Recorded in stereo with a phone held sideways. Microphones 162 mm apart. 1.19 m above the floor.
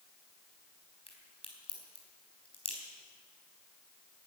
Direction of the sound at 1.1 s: 35° left (ahead or behind).